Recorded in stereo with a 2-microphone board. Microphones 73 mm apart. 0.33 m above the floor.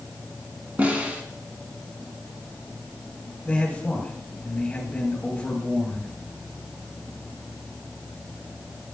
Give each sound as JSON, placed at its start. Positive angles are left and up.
{"t": 0.8, "sound": "a snare drum", "side_deg": -20, "distance_m": 1.3}
{"t": 3.5, "sound": "a man speaking", "side_deg": 15, "distance_m": 2.0}